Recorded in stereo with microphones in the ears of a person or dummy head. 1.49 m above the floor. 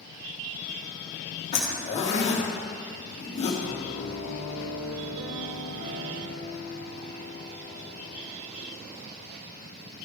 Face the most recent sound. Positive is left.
turn(degrees=-70)  # may be behind; listen again after turning